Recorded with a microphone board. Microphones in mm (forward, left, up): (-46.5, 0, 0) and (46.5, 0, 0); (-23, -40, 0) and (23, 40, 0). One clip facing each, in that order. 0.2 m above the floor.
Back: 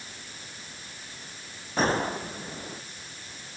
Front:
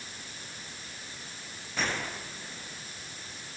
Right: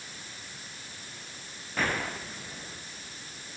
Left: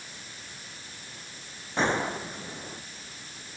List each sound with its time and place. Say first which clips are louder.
1.8 s a gunshot: back 8 dB, left 4 dB; 125° left